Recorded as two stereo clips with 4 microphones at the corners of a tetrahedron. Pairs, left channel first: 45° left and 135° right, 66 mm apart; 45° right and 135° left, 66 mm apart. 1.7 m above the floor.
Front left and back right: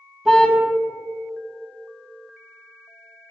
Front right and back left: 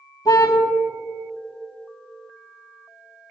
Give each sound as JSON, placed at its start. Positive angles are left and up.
{"t": 0.2, "sound": "a car horn", "azimuth_deg": -50, "distance_m": 4.0}